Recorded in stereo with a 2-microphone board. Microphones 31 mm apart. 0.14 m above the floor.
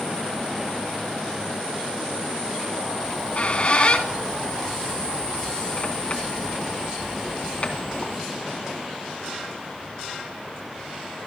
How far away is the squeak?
About 2.5 m.